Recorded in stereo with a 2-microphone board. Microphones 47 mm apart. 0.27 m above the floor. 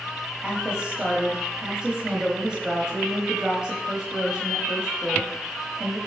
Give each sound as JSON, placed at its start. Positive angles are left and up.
{"t": 0.4, "sound": "a woman speaking", "side_deg": -20, "distance_m": 1.2}